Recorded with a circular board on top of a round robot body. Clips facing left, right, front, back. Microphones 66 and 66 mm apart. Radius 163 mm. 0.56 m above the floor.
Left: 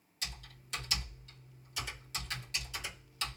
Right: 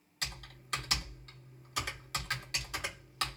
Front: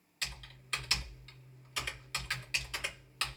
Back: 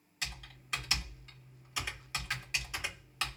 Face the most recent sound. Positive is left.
turn(degrees=-105)